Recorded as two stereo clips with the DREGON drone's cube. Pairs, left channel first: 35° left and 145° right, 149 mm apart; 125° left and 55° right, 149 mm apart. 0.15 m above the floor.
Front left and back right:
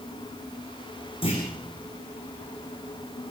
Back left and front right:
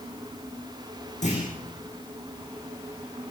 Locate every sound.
1.2 s a clunk: 85° left, 7.5 m